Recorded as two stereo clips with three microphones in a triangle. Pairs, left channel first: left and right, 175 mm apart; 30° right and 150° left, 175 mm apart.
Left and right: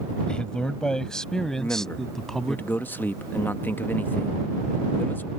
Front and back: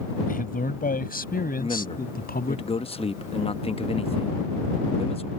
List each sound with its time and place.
0.3 s a man speaking: 5° left; by 2.6 s straight ahead
1.6 s a man speaking: 15° left